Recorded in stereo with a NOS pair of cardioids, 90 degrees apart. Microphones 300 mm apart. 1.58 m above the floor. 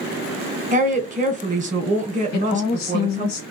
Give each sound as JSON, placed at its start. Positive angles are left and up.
{"t": 0.7, "sound": "a woman speaking", "azimuth_deg": -25, "distance_m": 1.1}
{"t": 2.3, "sound": "a woman speaking", "azimuth_deg": 65, "distance_m": 1.3}